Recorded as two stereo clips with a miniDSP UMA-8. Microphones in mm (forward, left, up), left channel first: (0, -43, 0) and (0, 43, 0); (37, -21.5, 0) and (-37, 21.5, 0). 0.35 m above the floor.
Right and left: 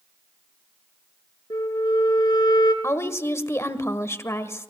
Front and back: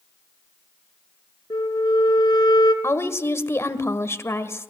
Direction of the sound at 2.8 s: 60° right.